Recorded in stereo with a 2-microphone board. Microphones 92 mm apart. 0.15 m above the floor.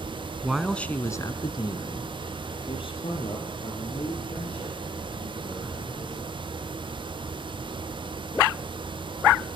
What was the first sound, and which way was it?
A man speaking, 10° right (ahead or behind).